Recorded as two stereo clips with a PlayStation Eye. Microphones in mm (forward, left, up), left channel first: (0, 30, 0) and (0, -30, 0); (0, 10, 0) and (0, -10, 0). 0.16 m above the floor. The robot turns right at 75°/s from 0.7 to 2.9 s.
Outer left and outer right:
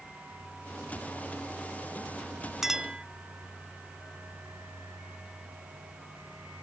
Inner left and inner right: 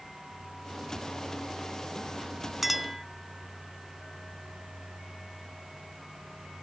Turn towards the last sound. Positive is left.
turn(degrees=-15)  # may be behind; listen again after turning